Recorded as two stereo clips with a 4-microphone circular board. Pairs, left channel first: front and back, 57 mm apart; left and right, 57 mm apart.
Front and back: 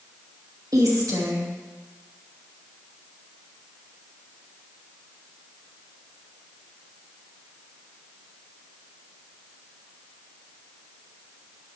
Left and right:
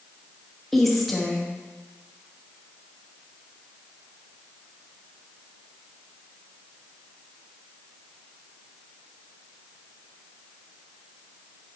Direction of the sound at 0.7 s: 175° left.